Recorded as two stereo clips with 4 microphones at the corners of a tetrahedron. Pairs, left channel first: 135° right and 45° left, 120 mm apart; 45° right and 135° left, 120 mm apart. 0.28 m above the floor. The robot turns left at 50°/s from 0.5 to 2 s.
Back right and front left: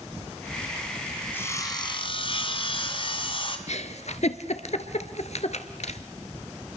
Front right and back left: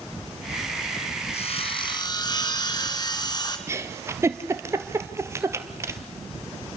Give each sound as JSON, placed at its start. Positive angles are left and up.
{"t": 1.3, "sound": "sawing", "azimuth_deg": -60, "distance_m": 2.5}
{"t": 3.7, "sound": "a giggle", "azimuth_deg": -160, "distance_m": 1.6}